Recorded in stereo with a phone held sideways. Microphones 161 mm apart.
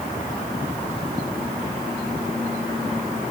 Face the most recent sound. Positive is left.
No sound to turn to.